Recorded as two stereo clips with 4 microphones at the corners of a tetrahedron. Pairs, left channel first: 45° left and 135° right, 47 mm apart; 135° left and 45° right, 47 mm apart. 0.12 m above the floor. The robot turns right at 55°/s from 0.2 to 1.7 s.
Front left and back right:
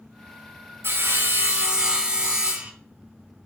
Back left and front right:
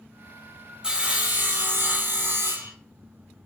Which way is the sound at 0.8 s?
115° right.